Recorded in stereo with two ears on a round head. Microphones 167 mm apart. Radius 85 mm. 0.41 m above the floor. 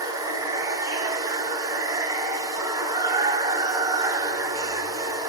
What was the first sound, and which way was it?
Running water, 20° right (ahead or behind).